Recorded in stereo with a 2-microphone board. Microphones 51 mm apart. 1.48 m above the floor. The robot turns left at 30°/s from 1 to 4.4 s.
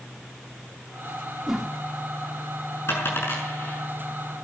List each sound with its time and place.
1.5 s a whoosh: centre (ahead or behind), 2.5 m; by 1.7 s 10° right (ahead or behind), 2.5 m
2.9 s a dropped coin: 65° left (ahead or behind), 6 m; by 3.8 s 35° left (ahead or behind), 6 m